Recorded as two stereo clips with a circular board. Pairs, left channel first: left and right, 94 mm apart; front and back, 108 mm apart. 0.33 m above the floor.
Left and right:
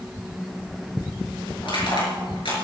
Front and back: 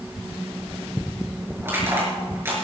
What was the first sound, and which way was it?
Crushing, 110° left.